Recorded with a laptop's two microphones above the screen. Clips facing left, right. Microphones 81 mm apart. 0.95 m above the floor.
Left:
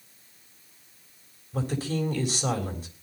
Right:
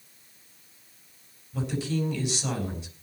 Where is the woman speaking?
45° left (ahead or behind), 4 m.